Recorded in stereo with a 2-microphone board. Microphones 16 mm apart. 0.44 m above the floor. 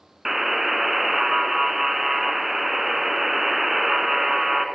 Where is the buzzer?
15° right (ahead or behind), 0.6 m.